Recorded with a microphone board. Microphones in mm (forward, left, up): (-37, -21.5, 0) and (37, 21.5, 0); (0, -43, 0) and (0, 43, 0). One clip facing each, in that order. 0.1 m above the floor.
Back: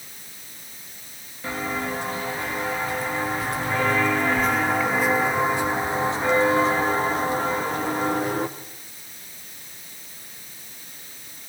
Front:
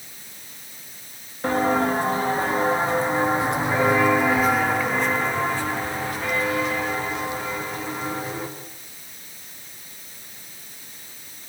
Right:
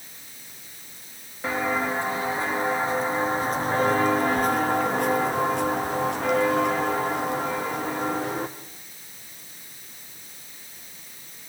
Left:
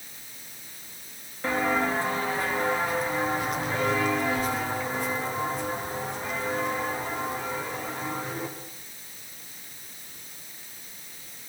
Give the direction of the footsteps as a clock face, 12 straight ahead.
12 o'clock.